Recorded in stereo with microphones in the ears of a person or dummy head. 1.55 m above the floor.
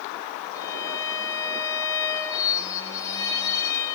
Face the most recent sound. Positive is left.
turn(degrees=20)  # may be behind; listen again after turning